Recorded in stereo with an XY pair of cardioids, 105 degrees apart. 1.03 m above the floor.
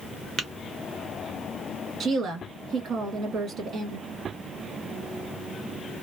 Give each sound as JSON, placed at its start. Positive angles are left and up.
{"t": 0.4, "sound": "tapping", "azimuth_deg": -55, "distance_m": 1.0}
{"t": 2.0, "sound": "a woman speaking", "azimuth_deg": -60, "distance_m": 1.7}